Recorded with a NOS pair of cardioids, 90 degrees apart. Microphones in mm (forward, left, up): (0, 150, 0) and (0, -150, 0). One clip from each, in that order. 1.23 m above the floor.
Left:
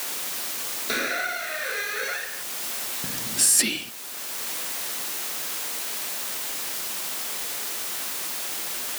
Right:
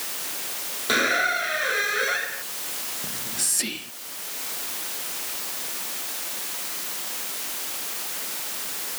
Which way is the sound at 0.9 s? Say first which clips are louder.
Right 6 dB; 35° right.